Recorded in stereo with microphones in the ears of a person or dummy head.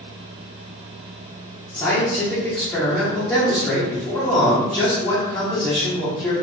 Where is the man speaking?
10° left (ahead or behind), 1.1 m.